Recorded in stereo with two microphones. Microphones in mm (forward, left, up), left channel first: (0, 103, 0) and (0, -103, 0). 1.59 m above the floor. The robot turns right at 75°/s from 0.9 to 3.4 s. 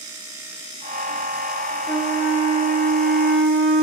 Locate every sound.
1.9 s a flute: 170° left, 3 m; by 3.8 s 75° right, 3 m